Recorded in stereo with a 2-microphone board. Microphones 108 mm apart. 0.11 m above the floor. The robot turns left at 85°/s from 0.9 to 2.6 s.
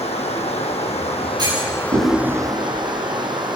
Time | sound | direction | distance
0.0 | running water | 100° left | 3.5 m
1.4 | a clunk | 40° right (ahead or behind) | 9 m